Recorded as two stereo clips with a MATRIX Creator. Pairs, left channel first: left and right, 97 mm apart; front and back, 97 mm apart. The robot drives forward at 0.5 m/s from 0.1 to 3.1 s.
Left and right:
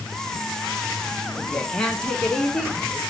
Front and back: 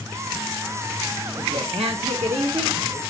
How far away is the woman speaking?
About 1.1 m.